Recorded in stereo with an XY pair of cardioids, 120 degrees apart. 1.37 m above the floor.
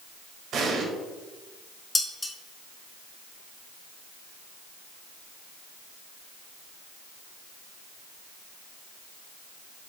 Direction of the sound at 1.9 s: 15° left.